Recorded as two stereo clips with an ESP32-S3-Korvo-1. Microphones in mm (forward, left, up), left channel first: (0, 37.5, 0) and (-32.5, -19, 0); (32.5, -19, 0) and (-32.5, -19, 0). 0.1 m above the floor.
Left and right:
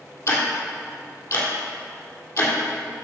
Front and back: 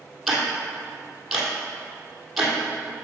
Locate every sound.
0.3 s ticking: 95° left, 2.5 m